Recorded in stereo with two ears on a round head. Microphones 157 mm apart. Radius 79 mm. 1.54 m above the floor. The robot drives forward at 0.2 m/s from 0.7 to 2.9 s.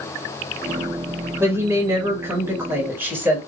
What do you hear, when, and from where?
1.4 s a woman speaking: 15° right (ahead or behind), 1.6 m